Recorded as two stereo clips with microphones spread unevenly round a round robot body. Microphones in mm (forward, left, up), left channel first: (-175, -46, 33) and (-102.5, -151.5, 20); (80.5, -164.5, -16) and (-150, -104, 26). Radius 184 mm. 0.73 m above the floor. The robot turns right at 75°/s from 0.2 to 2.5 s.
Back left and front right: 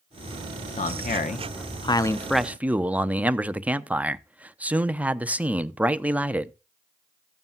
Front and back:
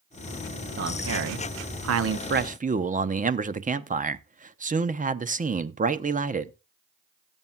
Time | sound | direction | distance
0.8 | a man speaking | 95° left | 0.9 m